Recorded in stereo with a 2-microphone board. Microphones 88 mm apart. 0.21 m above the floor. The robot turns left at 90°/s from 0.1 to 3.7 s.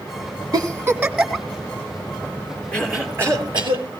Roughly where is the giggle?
Right.